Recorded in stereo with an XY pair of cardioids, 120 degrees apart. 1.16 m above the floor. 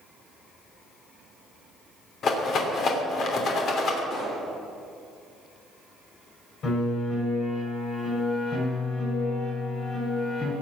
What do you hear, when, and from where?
2.2 s a rattle: 50° left, 3 m
4.1 s a pop: 65° left, 6.5 m
6.6 s a piano: 55° left, 7.5 m